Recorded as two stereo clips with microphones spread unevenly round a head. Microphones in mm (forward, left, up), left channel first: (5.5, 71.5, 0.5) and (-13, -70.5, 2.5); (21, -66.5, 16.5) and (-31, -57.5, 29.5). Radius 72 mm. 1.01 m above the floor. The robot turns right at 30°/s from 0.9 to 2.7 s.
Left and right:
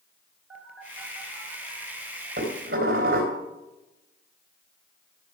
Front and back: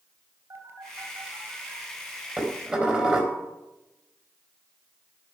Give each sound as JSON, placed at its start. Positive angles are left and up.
{"t": 0.5, "sound": "a phone buzzing", "azimuth_deg": 180, "distance_m": 3.0}
{"t": 2.4, "sound": "dishes clattering", "azimuth_deg": -135, "distance_m": 3.5}